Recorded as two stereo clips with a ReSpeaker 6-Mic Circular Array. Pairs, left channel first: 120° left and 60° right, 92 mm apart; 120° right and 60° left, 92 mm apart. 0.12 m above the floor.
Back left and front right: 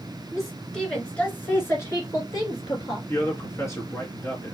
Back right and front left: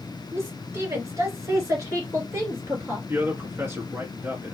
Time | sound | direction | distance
0.3 | a woman speaking | 25° left | 1.9 m
3.1 | a man speaking | 95° left | 1.7 m